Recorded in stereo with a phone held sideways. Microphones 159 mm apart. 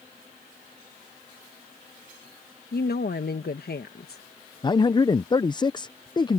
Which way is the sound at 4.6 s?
30° left (ahead or behind).